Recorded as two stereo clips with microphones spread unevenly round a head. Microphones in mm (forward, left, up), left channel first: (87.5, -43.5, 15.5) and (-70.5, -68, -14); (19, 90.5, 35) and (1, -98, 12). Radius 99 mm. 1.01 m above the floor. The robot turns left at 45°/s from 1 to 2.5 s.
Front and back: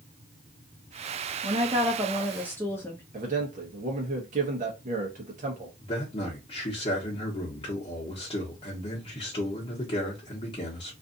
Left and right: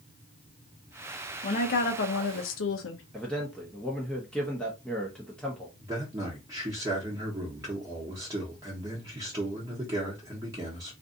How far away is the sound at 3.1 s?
About 0.8 m.